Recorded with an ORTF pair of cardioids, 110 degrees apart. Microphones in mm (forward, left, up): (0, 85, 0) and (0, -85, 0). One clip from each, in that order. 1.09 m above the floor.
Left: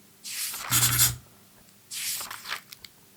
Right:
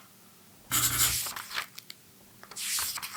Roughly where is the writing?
Ahead left.